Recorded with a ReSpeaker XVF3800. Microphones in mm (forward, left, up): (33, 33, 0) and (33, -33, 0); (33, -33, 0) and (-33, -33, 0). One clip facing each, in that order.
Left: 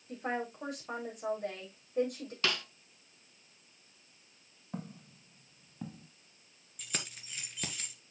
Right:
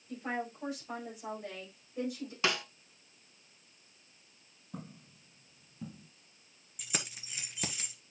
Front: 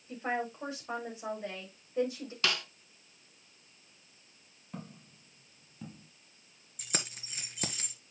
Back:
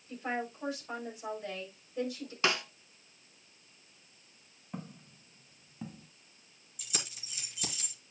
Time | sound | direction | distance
0.1 | a woman speaking | 65° left | 6.5 m
2.4 | a snare drum | 140° right | 0.9 m
4.7 | footsteps | 105° left | 4.5 m
6.8 | keys jangling | 10° right | 1.4 m